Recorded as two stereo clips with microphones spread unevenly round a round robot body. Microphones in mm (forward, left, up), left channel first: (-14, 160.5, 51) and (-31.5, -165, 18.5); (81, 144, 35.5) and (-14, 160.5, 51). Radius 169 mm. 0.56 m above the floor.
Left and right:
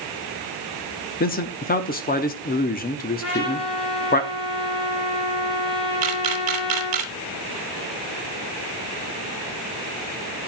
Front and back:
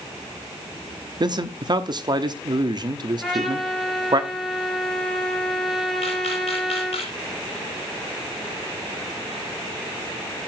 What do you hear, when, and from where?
1.2 s a man speaking: 145° left, 1.1 m
3.2 s a trumpet: 80° left, 4.5 m
6.0 s a camera shutter: 65° right, 1.3 m